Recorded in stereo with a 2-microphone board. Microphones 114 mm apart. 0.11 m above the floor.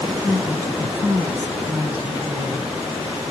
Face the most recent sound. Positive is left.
turn(degrees=-20)  # may be behind; listen again after turning